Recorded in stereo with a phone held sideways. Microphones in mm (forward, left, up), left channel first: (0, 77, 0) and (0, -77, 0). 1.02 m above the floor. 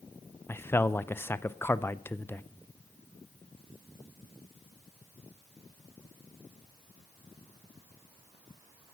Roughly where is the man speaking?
Centre.